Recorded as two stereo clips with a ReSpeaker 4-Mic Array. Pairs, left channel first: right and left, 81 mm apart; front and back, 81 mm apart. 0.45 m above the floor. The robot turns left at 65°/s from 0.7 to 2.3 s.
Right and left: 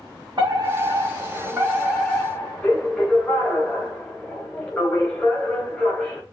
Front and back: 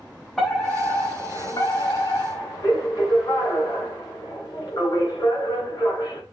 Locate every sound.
0.4 s a fire alarm: 90° left, 4 m; by 6.2 s 15° right, 4 m